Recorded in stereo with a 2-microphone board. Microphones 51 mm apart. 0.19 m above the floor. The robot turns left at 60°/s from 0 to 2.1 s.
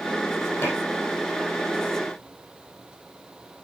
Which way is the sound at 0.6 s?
50° left (ahead or behind).